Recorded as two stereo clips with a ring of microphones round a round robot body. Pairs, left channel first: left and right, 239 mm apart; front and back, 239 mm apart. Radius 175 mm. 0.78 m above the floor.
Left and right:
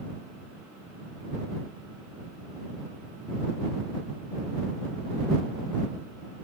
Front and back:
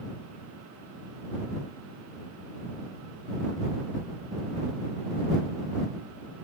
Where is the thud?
I don't hear a thud.